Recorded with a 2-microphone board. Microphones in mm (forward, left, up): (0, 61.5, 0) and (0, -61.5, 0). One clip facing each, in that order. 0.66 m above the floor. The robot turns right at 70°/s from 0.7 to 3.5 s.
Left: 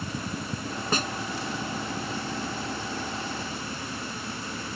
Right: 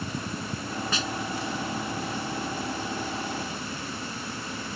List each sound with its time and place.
0.9 s a snare drum: 45° left (ahead or behind); by 1.2 s 65° left (ahead or behind)